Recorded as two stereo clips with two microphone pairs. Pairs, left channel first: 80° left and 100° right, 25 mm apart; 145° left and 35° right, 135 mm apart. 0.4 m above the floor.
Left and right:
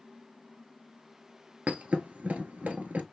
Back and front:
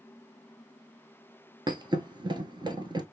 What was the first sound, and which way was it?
A thud, 90° right.